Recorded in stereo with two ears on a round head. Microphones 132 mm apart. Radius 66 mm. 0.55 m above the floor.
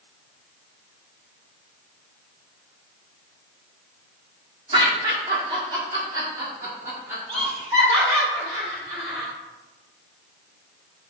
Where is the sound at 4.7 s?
35° right (ahead or behind), 1.5 m; by 7.5 s 10° right (ahead or behind), 1.7 m.